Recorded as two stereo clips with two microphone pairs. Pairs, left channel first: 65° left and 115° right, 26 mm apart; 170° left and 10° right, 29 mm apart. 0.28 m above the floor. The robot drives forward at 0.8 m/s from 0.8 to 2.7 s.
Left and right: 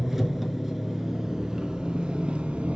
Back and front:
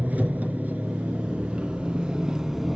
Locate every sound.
0.0 s an engine running: 35° right, 1.9 m; by 2.8 s 90° right, 1.2 m